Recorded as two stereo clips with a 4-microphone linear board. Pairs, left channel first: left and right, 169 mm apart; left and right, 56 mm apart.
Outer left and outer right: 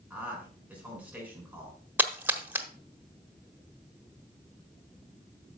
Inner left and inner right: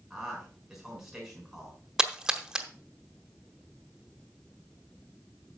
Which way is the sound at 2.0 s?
10° right (ahead or behind).